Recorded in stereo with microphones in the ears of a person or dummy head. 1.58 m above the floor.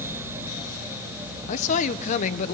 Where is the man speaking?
45° left (ahead or behind), 1.3 m.